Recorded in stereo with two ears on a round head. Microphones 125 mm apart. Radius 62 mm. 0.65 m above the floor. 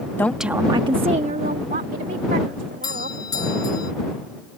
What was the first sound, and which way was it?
A woman speaking, 15° left (ahead or behind).